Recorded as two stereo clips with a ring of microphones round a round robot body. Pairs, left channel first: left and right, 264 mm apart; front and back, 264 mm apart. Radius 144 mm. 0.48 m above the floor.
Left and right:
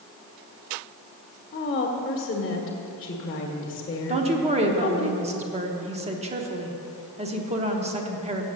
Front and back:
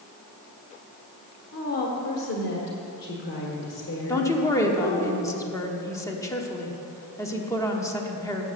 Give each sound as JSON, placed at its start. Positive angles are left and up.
{"t": 1.5, "sound": "a woman speaking", "azimuth_deg": 35, "distance_m": 1.3}
{"t": 4.1, "sound": "a woman speaking", "azimuth_deg": -65, "distance_m": 1.0}